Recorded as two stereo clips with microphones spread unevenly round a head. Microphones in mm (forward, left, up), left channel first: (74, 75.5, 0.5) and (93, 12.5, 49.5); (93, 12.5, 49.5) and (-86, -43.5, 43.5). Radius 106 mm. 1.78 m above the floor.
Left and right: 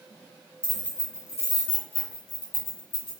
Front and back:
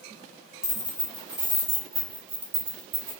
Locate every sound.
0.6 s keys jangling: 45° right, 0.8 m; by 3.1 s 135° left, 1.3 m